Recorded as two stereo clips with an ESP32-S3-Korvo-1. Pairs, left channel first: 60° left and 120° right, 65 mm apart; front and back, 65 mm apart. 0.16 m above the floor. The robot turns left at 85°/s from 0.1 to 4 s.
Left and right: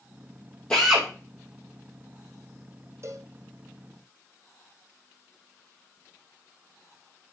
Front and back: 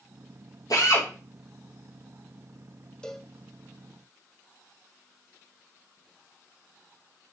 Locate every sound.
0.7 s a drill: 15° right, 5.5 m; by 1.1 s 45° right, 5.5 m
3.0 s a cowbell: 75° right, 1.4 m; by 3.3 s 100° right, 1.4 m